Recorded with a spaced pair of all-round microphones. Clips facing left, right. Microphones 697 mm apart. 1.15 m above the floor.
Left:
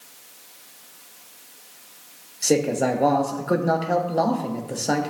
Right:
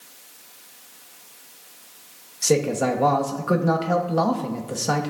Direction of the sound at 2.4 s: 35° right (ahead or behind).